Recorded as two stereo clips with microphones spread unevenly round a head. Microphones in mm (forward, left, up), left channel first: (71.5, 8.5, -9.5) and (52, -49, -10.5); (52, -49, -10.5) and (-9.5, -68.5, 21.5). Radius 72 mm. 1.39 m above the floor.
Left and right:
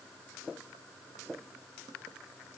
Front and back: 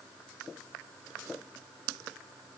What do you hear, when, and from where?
Only background noise.